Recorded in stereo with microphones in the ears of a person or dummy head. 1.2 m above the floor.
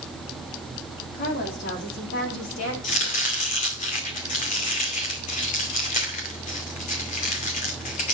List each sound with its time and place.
1.1 s a woman speaking: 50° left (ahead or behind), 3 m; by 2.7 s 75° left (ahead or behind), 3.5 m
2.8 s chopping: 40° left (ahead or behind), 2 m